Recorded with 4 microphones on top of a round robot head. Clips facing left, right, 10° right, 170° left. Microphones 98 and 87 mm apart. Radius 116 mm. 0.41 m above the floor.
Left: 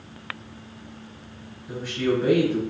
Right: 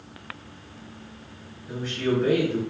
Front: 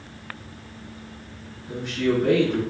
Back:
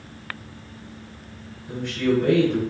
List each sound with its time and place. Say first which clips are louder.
1.7 s a man speaking: left 1 dB, back 1 dB; 175° left, 1.6 m